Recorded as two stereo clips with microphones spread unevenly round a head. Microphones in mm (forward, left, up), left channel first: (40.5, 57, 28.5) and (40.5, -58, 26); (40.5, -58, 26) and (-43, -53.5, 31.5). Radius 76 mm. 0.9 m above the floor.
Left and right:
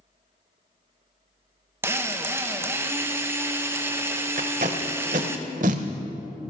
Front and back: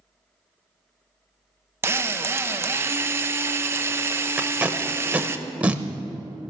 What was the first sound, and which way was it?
A drill, 140° right.